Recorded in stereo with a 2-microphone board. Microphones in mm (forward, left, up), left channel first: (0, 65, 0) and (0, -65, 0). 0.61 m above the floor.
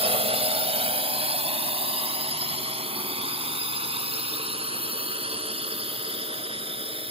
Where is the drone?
45° right (ahead or behind).